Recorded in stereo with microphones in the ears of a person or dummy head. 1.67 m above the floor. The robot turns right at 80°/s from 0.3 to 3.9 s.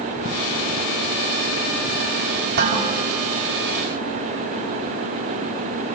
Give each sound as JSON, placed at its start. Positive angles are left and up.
{"t": 2.6, "sound": "dishes clattering", "azimuth_deg": -60, "distance_m": 7.5}